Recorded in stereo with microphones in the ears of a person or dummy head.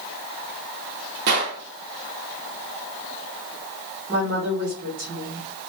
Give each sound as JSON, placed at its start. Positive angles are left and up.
{"t": 1.3, "sound": "a gunshot", "side_deg": -55, "distance_m": 1.0}
{"t": 4.1, "sound": "a woman speaking", "side_deg": -35, "distance_m": 1.0}